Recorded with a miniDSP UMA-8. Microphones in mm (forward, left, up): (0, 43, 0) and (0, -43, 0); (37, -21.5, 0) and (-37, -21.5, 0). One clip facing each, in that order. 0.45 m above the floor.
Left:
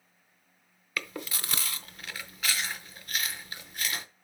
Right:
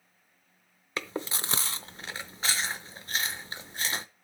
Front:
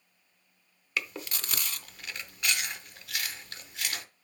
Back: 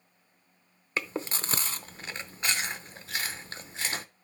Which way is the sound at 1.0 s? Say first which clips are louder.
Right 3 dB, back 3 dB; 135° right.